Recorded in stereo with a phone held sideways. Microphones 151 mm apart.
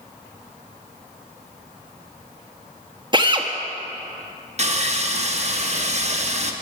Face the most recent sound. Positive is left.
turn(degrees=-45)  # may be behind; listen again after turning